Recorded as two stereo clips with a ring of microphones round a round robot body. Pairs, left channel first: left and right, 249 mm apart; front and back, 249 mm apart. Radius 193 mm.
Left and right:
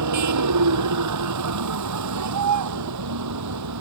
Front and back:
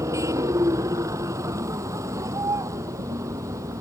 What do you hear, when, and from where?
0.0 s a vehicle: 100° right